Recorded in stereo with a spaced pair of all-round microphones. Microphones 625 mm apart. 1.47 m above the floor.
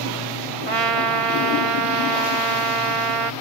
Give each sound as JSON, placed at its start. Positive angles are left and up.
{"t": 0.7, "sound": "a trumpet", "side_deg": -65, "distance_m": 1.0}